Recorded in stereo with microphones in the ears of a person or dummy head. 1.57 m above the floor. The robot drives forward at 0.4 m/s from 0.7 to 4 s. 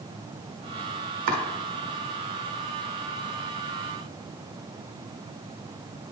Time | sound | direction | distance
1.3 | chopping | 60° right (ahead or behind) | 1.0 m